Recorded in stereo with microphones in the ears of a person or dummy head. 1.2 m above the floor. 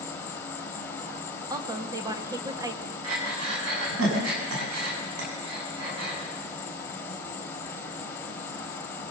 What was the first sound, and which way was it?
An insect, 15° left (ahead or behind).